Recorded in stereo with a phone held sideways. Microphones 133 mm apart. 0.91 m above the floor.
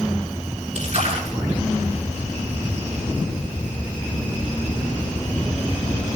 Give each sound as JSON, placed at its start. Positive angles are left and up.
{"t": 0.8, "sound": "a splash", "side_deg": -55, "distance_m": 7.5}